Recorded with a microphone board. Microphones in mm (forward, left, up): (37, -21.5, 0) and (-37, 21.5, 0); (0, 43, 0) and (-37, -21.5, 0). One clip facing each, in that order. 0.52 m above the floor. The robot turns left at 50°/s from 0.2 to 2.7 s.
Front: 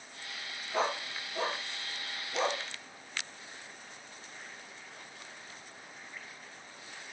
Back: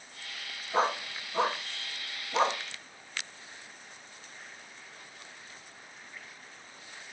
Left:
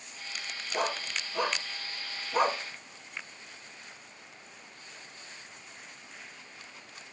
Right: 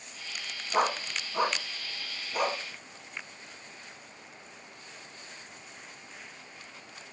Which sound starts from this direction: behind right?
A dog barking, at 0.7 s.